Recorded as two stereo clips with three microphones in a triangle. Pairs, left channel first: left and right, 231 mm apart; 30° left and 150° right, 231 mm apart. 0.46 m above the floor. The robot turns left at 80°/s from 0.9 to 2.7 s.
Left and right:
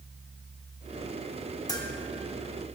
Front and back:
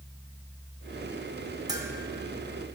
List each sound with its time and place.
1.7 s a bell: 155° left, 0.9 m; by 1.9 s 140° left, 0.9 m